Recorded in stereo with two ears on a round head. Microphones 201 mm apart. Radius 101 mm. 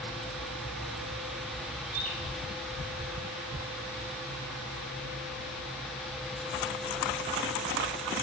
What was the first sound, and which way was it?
A bird, 80° right.